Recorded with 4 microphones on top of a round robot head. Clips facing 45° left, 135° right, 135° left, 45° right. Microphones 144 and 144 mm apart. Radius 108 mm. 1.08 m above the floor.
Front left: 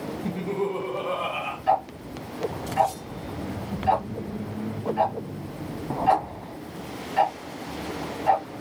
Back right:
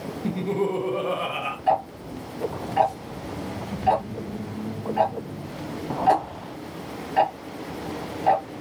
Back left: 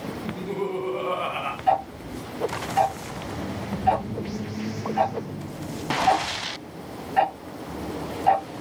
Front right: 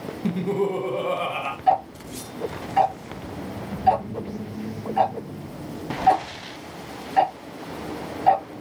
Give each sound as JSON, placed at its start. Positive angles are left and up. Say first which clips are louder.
{"t": 0.2, "sound": "laughter", "louder": "back right 3 dB, front right 7 dB", "azimuth_deg": -65, "distance_m": 0.6}
{"t": 1.7, "sound": "ticking", "louder": "back right 1 dB, front right 2 dB", "azimuth_deg": -95, "distance_m": 0.9}